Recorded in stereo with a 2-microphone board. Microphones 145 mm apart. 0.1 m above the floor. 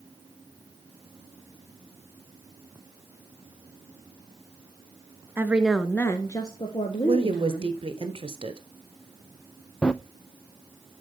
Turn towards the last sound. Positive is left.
turn(degrees=5)  # may be behind; listen again after turning